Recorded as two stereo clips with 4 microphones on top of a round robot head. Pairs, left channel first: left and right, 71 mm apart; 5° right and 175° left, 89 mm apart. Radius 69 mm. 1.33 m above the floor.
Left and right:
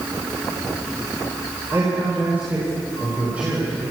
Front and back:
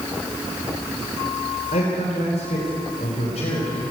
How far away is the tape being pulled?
I don't hear tape being pulled.